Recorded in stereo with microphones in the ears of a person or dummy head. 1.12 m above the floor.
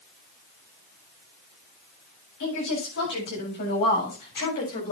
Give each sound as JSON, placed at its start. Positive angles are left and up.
{"t": 2.4, "sound": "a woman speaking", "side_deg": 65, "distance_m": 8.0}